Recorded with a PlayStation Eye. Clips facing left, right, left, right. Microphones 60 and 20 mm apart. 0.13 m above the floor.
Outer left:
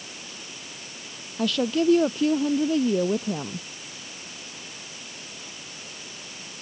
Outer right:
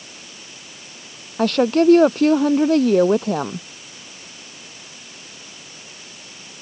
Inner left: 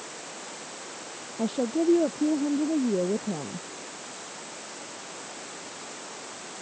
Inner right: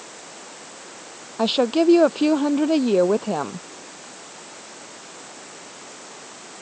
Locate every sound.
1.4 s a woman speaking: 55° right (ahead or behind); by 3.7 s 70° right (ahead or behind)